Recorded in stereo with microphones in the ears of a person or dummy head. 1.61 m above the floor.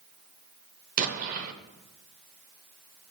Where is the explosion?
45° right (ahead or behind), 0.7 m.